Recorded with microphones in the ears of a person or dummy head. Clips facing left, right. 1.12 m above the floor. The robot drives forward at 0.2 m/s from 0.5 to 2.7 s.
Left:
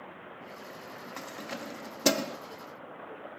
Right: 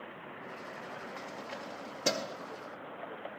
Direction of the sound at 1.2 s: 70° left (ahead or behind).